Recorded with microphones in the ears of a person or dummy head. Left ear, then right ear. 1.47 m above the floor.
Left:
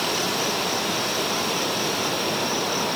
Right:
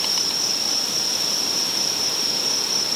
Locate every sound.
0.0 s an insect: 45° right (ahead or behind)